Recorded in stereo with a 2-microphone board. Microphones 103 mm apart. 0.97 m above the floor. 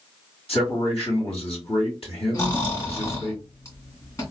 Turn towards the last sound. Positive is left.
turn(degrees=35)  # may be behind; listen again after turning